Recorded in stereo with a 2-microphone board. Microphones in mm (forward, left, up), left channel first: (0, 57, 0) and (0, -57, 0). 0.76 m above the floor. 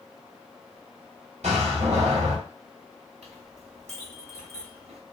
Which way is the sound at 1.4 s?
85° right.